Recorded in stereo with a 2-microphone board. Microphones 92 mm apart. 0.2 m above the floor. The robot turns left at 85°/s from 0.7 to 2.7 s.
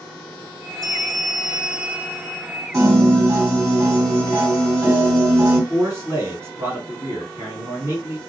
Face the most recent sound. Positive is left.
turn(degrees=-30)  # may be behind; listen again after turning